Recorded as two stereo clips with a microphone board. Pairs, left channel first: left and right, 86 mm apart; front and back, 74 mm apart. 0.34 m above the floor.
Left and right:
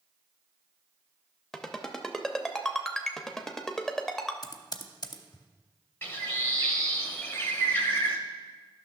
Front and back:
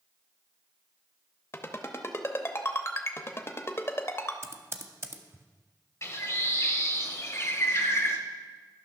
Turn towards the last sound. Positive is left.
turn(degrees=30)